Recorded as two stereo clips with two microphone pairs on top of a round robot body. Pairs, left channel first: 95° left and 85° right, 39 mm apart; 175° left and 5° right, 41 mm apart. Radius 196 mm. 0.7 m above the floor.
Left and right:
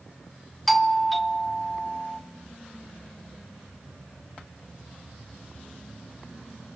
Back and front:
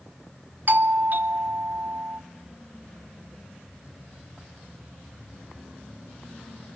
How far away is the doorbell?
About 1.6 m.